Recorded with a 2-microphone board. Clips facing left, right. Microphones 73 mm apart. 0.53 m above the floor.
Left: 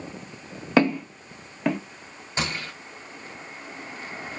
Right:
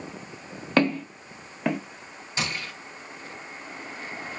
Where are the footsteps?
10° left (ahead or behind), 0.8 m; by 1.8 s 5° right (ahead or behind), 0.6 m.